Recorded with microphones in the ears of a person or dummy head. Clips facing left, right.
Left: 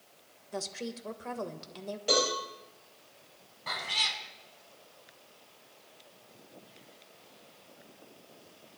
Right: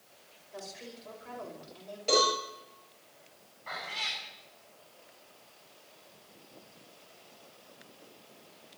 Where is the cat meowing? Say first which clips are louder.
Left 2 dB; 65° left (ahead or behind), 3 m.